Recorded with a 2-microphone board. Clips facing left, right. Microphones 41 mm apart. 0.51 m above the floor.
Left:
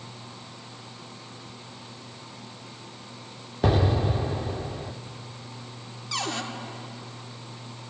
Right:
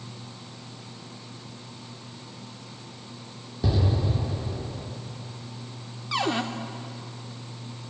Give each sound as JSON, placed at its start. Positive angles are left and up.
{"t": 3.6, "sound": "an explosion", "side_deg": 55, "distance_m": 0.5}
{"t": 6.1, "sound": "a cupboard door", "side_deg": -20, "distance_m": 0.6}